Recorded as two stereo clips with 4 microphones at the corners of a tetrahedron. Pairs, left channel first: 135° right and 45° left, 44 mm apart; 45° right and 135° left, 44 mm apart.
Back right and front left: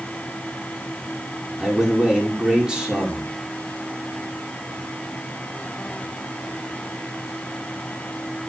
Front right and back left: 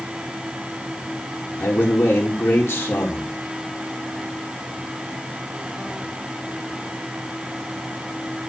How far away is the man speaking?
About 5 m.